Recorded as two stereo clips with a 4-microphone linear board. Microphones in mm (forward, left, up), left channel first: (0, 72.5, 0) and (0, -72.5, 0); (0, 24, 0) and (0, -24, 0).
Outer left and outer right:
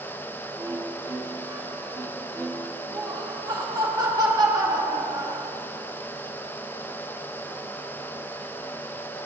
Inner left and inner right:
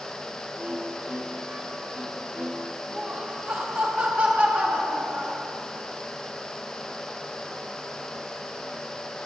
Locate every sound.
0.6 s a violin: 20° right (ahead or behind), 1.9 m
2.9 s laughter: 25° right (ahead or behind), 2.5 m